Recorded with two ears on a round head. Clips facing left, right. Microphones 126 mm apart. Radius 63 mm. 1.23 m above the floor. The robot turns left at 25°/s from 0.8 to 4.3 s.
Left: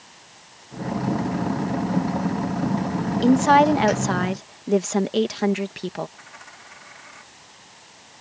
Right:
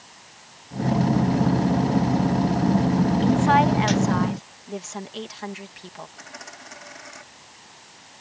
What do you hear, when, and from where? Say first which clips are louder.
3.2 s a woman speaking: left 6 dB; 45° left (ahead or behind); by 6.1 s 65° left (ahead or behind)
6.2 s a dropped coin: right 3 dB; 45° right (ahead or behind)